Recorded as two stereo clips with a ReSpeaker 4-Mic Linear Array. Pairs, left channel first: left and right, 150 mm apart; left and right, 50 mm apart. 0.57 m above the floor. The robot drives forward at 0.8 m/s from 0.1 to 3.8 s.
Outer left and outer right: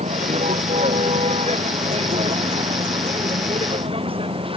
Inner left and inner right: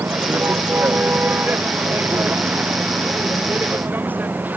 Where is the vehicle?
45° right (ahead or behind); by 4.6 s 35° right (ahead or behind).